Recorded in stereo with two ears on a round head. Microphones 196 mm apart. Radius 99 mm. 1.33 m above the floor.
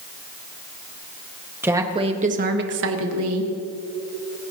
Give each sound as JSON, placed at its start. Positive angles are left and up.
{"t": 1.6, "sound": "a woman speaking", "side_deg": -10, "distance_m": 1.9}